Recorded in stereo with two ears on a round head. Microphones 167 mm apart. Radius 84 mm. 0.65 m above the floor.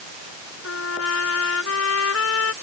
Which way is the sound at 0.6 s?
85° left.